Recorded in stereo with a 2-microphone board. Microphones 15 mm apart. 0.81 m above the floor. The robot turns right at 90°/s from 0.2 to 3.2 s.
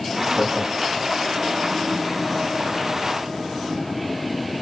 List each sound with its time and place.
0.3 s laughter: 75° right (ahead or behind), 8 m; by 1.1 s 40° right (ahead or behind), 8 m